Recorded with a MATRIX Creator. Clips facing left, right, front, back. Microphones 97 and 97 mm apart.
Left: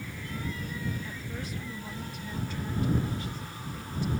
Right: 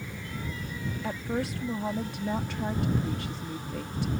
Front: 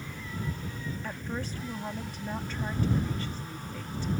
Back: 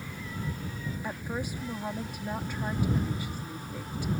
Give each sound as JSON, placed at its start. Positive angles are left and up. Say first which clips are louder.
{"t": 1.0, "sound": "a woman speaking", "louder": "right 8 dB, back 3 dB", "azimuth_deg": -105}